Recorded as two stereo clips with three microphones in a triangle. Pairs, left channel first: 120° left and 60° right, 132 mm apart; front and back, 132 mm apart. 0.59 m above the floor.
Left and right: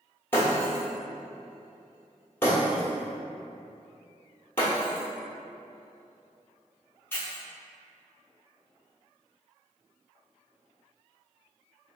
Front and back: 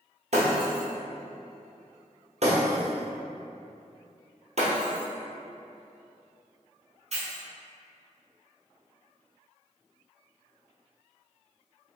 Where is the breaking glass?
170° right, 1.0 m.